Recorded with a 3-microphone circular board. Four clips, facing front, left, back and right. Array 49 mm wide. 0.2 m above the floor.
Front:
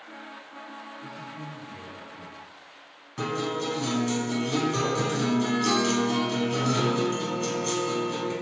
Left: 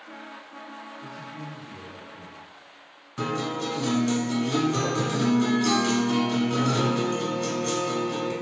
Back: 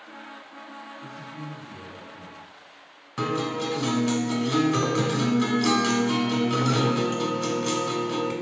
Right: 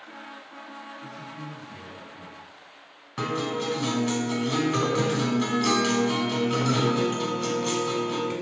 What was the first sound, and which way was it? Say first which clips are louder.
A man speaking: even, back 1 dB; 80° left.